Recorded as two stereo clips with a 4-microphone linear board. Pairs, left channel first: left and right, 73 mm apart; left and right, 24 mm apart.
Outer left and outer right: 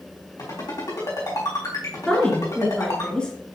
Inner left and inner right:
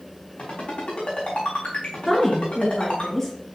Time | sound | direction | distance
0.4 | a ringtone | 60° left (ahead or behind) | 4 m
2.1 | a woman speaking | 15° left (ahead or behind) | 2.0 m